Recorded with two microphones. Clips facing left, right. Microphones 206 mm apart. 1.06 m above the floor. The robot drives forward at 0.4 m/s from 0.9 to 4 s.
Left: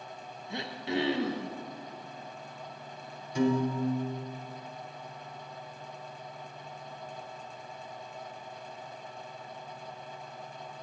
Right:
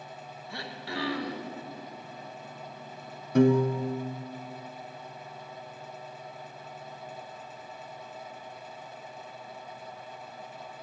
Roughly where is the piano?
Right.